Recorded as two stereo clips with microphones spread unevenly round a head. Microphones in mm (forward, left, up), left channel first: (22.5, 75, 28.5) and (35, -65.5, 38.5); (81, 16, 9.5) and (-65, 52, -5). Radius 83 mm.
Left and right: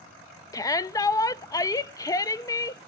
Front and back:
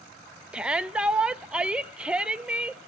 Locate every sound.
0.5 s a shout: 100° left, 0.7 m